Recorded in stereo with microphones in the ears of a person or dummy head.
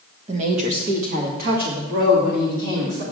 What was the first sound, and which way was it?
A woman speaking, 35° right (ahead or behind).